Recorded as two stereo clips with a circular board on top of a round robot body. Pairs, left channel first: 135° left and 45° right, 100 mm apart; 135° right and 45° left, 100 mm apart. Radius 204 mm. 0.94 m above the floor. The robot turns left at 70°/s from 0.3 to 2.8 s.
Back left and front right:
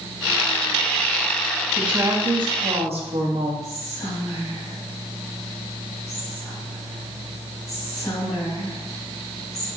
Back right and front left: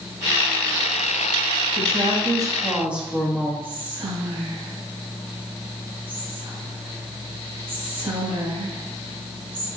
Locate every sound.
1.8 s a woman speaking: 35° left, 1.8 m; by 3.5 s 35° right, 1.8 m
3.6 s whispering: 80° left, 3.5 m